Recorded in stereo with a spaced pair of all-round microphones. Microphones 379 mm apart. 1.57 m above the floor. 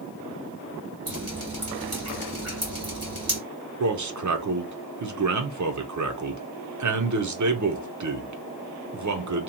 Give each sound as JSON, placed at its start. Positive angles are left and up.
{"t": 1.1, "sound": "dripping", "side_deg": -40, "distance_m": 1.8}
{"t": 3.8, "sound": "a man speaking", "side_deg": -50, "distance_m": 0.5}